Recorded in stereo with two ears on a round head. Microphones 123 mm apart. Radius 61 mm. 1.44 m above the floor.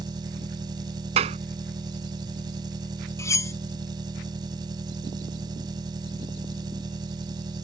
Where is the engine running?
30° right (ahead or behind).